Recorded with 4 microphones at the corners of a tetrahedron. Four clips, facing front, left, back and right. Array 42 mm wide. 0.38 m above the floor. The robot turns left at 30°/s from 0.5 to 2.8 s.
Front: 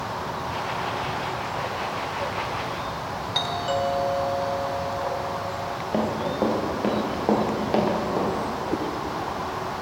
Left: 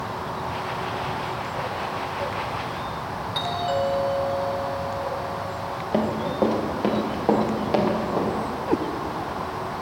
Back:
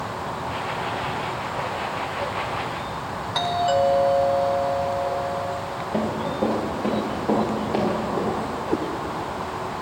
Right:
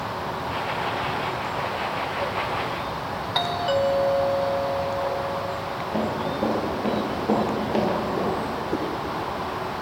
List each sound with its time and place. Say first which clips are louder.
3.4 s a doorbell: right 2 dB, back 5 dB; 100° right, 1.4 m
5.9 s running footsteps: left 3 dB, even; 65° left, 4.5 m; by 8.3 s 45° left, 5.5 m
8.7 s a cat meowing: left 6 dB, back 4 dB; 100° left, 0.8 m